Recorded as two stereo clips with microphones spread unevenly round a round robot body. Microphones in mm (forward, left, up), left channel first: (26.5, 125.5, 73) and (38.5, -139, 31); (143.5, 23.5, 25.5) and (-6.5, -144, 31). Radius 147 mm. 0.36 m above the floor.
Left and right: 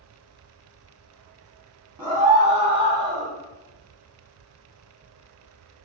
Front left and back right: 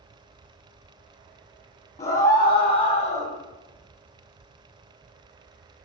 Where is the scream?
10° right, 3 m; by 3.3 s straight ahead, 5 m.